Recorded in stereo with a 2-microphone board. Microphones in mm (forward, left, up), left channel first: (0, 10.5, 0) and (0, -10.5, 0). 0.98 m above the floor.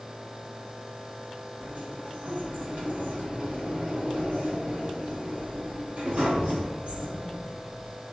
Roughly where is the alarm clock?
No alarm clock in this recording.